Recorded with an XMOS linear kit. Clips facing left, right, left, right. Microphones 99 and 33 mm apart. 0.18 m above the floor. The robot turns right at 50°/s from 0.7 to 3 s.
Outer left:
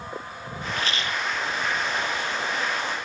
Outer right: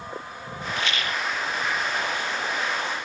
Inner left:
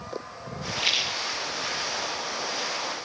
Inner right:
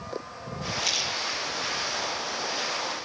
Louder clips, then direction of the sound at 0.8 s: Even, inner left 4 dB; 40° left (ahead or behind).